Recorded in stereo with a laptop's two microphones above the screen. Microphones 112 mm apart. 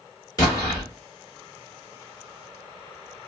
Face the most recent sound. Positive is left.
turn(degrees=35)  # may be behind; listen again after turning